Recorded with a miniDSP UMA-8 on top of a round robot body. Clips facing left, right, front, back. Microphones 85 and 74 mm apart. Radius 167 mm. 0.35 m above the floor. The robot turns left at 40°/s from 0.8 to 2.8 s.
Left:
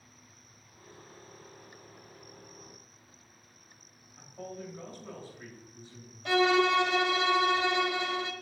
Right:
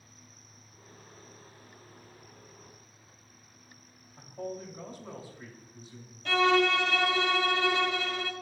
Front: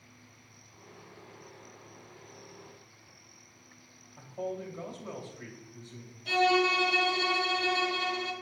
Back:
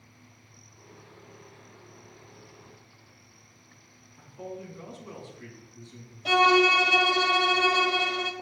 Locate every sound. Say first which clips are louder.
4.2 s a man speaking: right 4 dB, front 3 dB; 15° right, 3 m
6.2 s a violin: even, back 5 dB; 165° left, 1.6 m